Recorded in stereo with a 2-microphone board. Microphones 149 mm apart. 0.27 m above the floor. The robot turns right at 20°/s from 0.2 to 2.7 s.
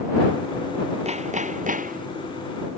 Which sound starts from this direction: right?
Hammering, at 1.1 s.